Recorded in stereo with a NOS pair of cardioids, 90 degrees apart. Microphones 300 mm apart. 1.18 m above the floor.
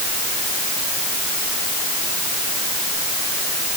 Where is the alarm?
No alarm in this recording.